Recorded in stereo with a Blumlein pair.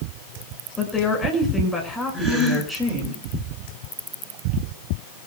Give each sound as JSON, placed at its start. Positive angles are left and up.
{"t": 0.8, "sound": "a woman speaking", "azimuth_deg": 10, "distance_m": 7.0}
{"t": 2.1, "sound": "a gasp", "azimuth_deg": -10, "distance_m": 9.0}